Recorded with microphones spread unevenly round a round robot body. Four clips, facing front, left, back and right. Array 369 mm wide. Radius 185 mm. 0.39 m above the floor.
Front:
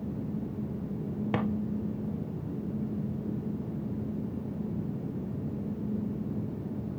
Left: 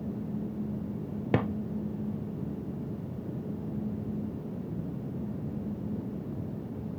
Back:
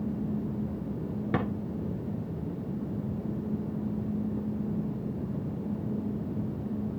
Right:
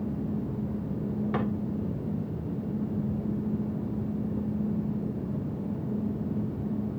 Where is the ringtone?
No ringtone in this recording.